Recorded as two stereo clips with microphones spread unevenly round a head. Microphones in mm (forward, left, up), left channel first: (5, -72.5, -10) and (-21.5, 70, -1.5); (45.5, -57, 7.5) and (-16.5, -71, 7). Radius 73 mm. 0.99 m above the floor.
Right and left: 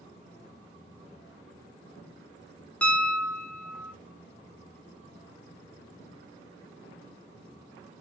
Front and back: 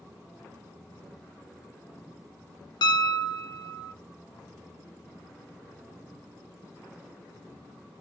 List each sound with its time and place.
2.8 s a piano: 5° left, 0.9 m